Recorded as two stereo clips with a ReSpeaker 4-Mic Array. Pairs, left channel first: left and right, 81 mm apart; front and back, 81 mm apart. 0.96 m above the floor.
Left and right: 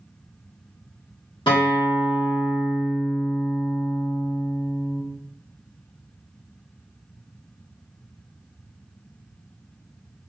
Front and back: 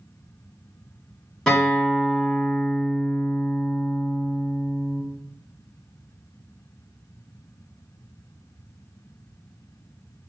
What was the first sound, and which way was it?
A guitar, 85° left.